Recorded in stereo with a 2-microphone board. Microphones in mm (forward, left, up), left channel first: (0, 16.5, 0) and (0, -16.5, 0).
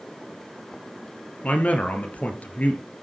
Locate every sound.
1.4 s a man speaking: 45° left (ahead or behind), 1.6 m